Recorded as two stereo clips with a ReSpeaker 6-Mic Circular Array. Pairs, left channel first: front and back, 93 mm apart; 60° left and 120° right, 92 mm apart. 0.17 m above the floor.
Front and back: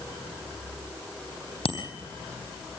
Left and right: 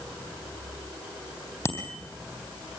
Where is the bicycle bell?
Straight ahead, 4 m.